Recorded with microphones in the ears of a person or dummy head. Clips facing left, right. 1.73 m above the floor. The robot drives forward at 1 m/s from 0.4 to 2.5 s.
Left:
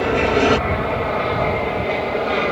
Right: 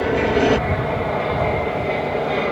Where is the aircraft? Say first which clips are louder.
Even; centre (ahead or behind).